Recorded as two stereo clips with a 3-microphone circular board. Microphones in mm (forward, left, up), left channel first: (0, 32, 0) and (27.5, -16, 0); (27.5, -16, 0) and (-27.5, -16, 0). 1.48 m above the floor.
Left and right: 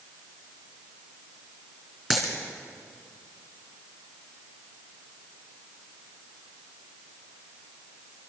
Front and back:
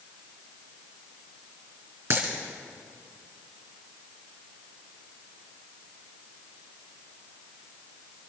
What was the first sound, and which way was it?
A dropped coin, 150° right.